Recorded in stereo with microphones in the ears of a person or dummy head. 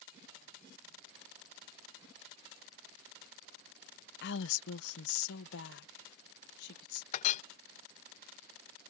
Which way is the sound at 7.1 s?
45° left (ahead or behind).